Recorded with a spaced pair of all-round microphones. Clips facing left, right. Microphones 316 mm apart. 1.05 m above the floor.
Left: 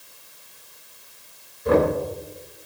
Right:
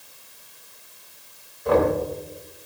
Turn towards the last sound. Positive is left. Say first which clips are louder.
# left 1 dB
turn(degrees=30)  # may be behind; listen again after turning